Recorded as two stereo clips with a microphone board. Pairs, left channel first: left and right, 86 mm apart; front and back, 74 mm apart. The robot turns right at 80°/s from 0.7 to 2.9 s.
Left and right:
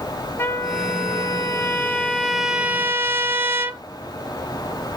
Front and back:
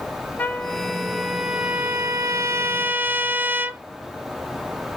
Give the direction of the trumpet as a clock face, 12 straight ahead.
10 o'clock.